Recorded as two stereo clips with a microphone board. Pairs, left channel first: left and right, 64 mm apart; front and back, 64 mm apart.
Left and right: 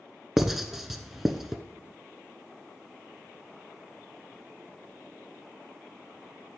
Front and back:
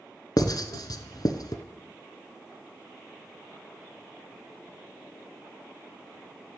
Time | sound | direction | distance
0.4 | writing | 5° right | 0.8 m